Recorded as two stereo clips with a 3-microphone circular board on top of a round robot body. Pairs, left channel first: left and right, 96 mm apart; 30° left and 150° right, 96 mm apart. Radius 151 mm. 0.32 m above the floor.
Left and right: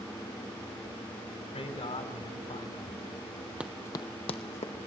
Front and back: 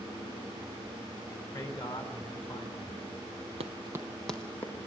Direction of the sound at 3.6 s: 165° right.